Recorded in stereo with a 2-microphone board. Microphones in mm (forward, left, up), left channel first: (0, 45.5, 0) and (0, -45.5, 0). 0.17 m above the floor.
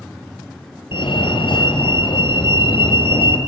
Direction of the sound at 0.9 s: 65° left (ahead or behind).